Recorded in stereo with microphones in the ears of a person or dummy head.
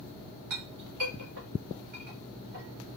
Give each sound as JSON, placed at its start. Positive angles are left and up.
{"t": 0.5, "sound": "a clink", "side_deg": -40, "distance_m": 1.1}